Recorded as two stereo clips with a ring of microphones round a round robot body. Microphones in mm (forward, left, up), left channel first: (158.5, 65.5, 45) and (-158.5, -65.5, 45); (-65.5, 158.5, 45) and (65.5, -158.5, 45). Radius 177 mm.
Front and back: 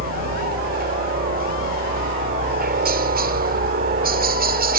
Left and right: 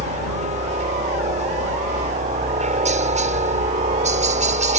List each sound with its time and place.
0.0 s a helicopter: 120° right